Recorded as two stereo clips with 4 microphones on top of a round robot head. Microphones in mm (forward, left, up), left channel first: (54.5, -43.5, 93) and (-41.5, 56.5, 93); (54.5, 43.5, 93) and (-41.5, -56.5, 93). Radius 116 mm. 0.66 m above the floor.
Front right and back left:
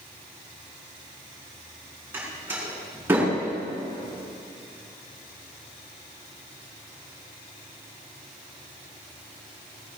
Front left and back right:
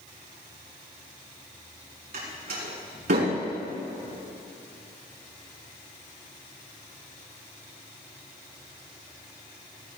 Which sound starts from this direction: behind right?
A door slam, at 2.1 s.